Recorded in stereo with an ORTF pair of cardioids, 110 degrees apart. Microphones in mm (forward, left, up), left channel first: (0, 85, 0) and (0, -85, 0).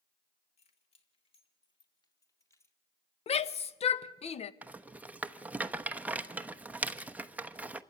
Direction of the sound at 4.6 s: 10° right.